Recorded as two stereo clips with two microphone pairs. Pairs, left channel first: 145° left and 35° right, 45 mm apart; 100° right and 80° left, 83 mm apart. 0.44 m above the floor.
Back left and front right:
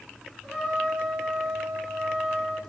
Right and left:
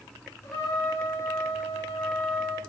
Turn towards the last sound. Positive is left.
turn(degrees=-105)